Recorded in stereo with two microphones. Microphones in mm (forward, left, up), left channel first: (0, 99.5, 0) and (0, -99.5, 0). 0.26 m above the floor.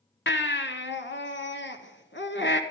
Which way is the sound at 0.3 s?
65° left (ahead or behind).